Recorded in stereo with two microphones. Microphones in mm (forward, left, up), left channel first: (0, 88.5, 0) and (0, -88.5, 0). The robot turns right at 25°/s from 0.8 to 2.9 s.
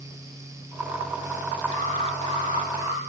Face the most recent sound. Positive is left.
turn(degrees=-20)